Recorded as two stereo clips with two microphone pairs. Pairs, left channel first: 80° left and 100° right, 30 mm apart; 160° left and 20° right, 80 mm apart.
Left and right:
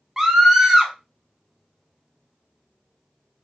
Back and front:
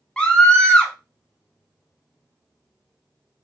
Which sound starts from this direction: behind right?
A scream, at 0.2 s.